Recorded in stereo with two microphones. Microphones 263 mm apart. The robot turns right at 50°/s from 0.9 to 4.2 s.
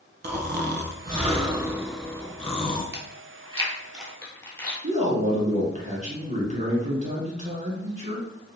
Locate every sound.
0.2 s snoring: 50° right, 0.6 m; by 2.8 s 45° left, 0.6 m
2.9 s chewing: 50° right (ahead or behind), 1.0 m; by 4.7 s 10° left (ahead or behind), 1.0 m
4.8 s a man speaking: 30° right (ahead or behind), 1.6 m